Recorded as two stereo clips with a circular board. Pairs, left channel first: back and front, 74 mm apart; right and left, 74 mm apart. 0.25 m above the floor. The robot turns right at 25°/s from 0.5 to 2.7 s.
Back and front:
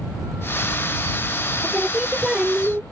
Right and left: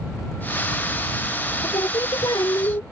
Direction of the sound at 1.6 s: 95° right.